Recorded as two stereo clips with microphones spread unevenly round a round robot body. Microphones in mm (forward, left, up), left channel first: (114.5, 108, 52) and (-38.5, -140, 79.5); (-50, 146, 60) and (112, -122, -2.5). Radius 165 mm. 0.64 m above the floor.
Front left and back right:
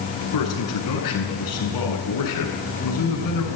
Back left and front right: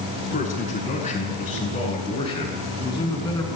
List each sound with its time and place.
0.3 s a man speaking: 55° left, 8 m; by 3.5 s 40° left, 7.5 m